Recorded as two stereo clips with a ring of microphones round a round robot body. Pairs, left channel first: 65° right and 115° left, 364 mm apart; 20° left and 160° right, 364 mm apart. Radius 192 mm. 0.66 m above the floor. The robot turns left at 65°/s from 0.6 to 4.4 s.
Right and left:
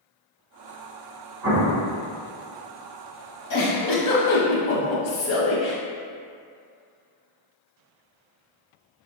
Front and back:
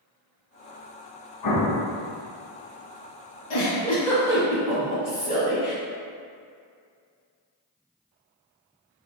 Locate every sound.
1.4 s an explosion: 60° left, 0.9 m; by 1.9 s 30° left, 0.9 m
3.5 s a giggle: 25° right, 1.1 m; by 5.8 s 85° right, 1.1 m